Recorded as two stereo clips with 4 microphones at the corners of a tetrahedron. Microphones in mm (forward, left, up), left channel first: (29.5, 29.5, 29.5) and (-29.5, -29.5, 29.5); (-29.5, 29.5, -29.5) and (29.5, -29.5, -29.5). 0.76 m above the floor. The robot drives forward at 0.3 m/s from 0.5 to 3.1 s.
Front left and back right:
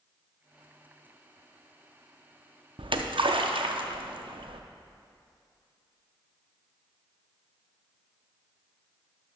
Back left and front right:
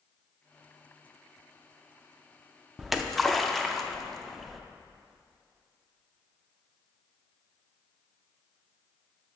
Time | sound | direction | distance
2.8 | a splash | 130° right | 0.5 m